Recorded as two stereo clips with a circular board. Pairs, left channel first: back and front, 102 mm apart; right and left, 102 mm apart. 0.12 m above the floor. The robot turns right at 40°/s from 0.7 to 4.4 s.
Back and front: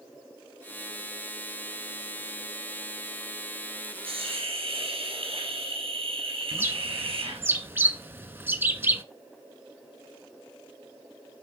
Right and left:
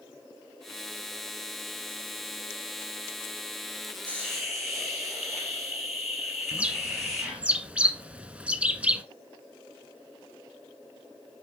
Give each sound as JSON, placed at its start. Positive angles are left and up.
{"t": 4.0, "sound": "a hiss", "azimuth_deg": -15, "distance_m": 4.0}
{"t": 6.5, "sound": "a bird", "azimuth_deg": 30, "distance_m": 0.7}